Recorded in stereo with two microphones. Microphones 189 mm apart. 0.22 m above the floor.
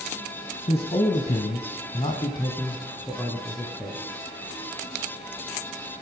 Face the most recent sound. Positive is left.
turn(degrees=10)  # may be behind; listen again after turning